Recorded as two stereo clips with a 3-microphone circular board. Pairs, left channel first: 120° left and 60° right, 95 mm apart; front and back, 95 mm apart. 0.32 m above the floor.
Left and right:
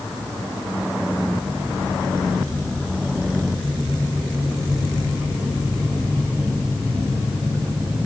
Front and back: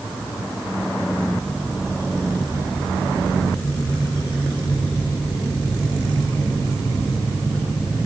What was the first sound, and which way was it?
Only background noise.